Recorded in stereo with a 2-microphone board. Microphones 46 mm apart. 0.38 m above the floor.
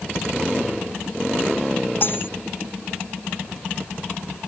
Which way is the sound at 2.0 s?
45° left (ahead or behind).